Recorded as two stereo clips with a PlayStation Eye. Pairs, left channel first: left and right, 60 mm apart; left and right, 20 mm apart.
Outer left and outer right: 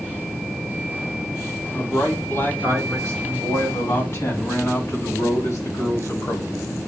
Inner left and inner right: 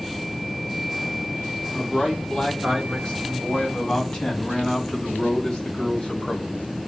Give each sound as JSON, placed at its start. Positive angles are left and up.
{"t": 1.7, "sound": "a man speaking", "side_deg": 40, "distance_m": 4.5}